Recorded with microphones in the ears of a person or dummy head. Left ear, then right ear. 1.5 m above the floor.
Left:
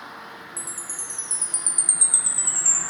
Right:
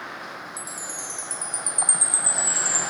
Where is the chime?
5° left (ahead or behind), 1.1 m.